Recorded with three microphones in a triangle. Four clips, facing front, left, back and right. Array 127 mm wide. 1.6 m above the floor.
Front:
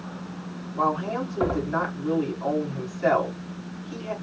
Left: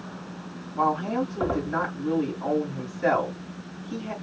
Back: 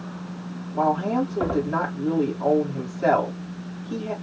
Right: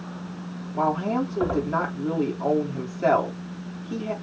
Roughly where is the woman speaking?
Behind right.